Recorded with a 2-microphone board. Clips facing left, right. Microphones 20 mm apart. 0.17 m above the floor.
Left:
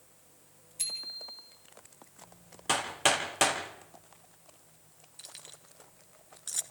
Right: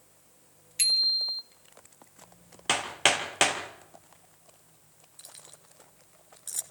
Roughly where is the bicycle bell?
Right.